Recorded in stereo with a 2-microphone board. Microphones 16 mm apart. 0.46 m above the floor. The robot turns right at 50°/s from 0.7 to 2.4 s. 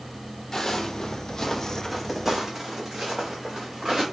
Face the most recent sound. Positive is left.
turn(degrees=-40)  # may be behind; listen again after turning